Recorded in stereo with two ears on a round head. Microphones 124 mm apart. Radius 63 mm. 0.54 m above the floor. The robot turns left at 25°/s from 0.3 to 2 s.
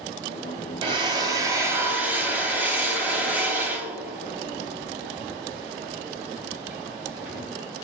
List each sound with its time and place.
0.8 s a drill: 45° right (ahead or behind), 1.7 m; by 7.5 s 15° right (ahead or behind), 1.7 m